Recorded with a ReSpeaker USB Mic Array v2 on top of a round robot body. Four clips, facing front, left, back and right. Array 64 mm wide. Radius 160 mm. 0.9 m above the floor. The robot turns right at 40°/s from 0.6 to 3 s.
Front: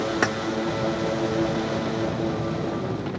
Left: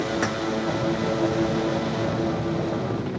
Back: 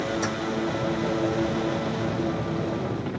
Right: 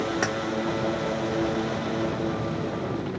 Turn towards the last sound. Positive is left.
turn(degrees=95)